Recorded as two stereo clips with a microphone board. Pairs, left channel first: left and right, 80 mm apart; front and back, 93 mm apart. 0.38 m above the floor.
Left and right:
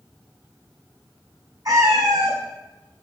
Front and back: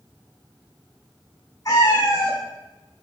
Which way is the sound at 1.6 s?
60° right.